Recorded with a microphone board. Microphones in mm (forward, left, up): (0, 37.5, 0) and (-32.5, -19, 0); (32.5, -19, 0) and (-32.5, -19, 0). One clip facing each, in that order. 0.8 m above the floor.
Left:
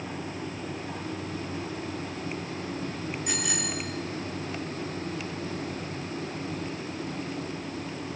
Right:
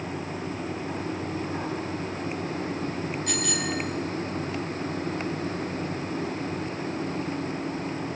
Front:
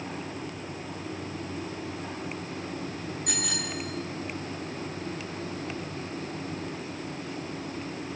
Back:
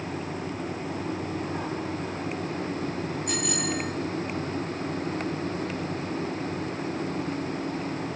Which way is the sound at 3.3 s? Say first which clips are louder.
Right 3 dB, back 5 dB; 15° right.